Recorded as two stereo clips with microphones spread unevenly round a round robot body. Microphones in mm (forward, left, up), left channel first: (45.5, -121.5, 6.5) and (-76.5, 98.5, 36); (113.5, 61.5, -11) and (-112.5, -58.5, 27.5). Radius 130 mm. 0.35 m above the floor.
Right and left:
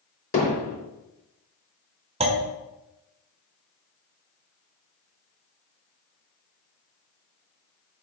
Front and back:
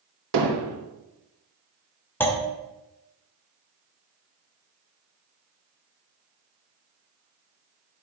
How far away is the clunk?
About 1.3 m.